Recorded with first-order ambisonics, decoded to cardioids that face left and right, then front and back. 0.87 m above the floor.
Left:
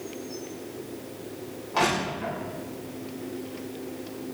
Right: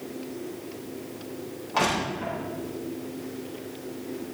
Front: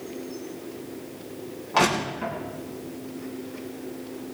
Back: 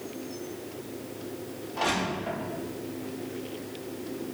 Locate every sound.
1.7 s crushing: 5° right, 8.5 m